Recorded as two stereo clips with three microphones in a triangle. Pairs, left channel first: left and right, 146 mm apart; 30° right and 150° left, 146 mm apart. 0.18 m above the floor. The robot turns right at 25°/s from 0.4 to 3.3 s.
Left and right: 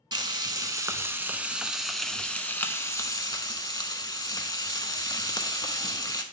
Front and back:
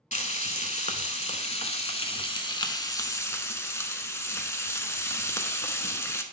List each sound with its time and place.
0.1 s frying: 40° right, 0.7 m; by 6.2 s 35° left, 0.7 m